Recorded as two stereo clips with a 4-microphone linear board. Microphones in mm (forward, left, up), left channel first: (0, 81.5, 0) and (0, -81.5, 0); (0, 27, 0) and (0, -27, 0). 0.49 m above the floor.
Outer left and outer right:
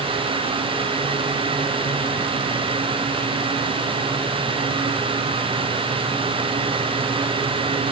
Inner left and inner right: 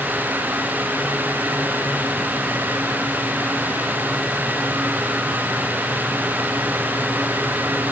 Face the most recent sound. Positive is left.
No sound to turn to.